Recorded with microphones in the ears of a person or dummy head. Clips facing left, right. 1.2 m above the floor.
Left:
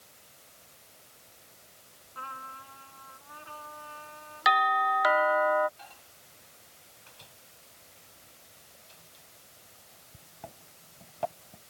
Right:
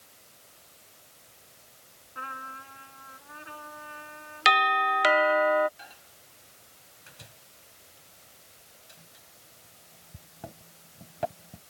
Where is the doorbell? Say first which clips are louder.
Even; 35° right (ahead or behind).